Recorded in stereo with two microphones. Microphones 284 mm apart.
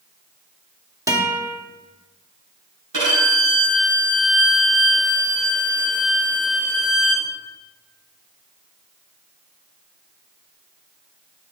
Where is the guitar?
10° right (ahead or behind), 1.6 m.